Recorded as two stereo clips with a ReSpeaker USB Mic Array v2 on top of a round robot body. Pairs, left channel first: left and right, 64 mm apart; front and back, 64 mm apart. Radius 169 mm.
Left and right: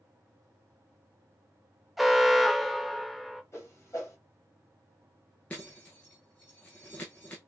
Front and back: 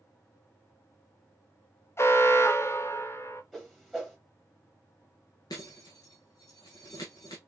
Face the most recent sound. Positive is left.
turn(degrees=20)